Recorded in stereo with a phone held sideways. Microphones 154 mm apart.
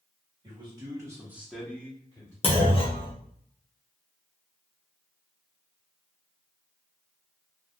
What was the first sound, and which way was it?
A man speaking, 30° right (ahead or behind).